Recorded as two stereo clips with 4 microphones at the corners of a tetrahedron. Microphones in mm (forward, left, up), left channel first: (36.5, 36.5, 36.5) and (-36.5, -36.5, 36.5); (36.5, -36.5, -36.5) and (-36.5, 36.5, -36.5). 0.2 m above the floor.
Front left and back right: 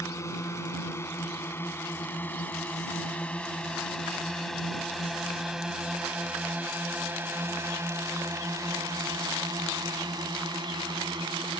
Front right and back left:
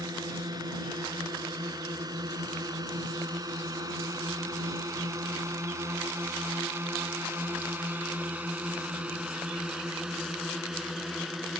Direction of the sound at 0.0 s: 100° left.